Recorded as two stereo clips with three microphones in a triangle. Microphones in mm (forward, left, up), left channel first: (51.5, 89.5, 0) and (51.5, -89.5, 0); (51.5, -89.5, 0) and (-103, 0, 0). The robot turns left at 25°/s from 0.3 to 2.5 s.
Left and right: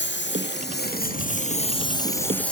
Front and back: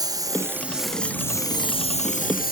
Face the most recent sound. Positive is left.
turn(degrees=5)